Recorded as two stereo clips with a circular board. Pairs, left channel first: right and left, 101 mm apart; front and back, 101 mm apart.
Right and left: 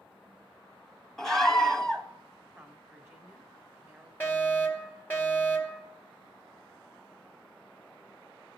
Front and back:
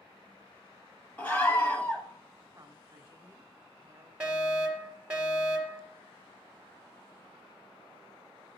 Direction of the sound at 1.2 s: 15° right.